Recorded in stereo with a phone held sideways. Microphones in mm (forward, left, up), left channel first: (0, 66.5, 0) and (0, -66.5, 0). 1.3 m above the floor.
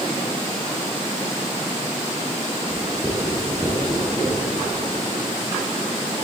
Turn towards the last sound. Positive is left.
turn(degrees=0)  # may be behind; listen again after turning